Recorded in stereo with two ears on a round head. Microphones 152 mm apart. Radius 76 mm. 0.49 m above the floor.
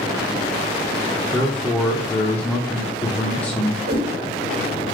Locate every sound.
1.3 s a man speaking: 10° left (ahead or behind), 0.7 m
3.9 s a whoosh: 60° right (ahead or behind), 1.8 m